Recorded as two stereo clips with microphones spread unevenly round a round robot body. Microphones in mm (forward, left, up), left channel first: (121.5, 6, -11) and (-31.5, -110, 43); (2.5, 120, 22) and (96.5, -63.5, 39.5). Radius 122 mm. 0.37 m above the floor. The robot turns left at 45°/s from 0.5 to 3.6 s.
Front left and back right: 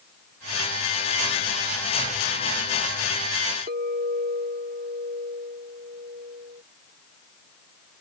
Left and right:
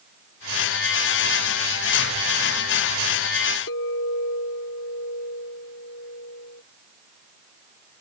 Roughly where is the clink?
Behind.